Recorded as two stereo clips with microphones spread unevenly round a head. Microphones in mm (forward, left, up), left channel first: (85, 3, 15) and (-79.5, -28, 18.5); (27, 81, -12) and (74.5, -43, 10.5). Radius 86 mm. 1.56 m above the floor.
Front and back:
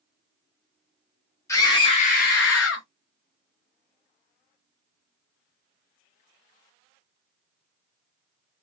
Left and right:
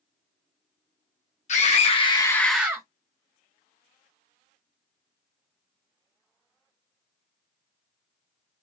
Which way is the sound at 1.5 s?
85° left.